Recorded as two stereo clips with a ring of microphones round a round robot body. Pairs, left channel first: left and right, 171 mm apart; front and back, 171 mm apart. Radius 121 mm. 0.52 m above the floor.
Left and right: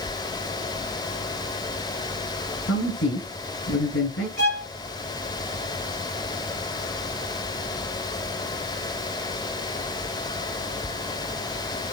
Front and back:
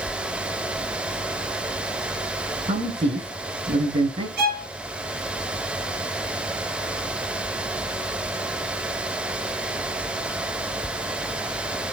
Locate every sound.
2.7 s a man speaking: 125° left, 6 m
4.4 s a violin: 155° left, 4 m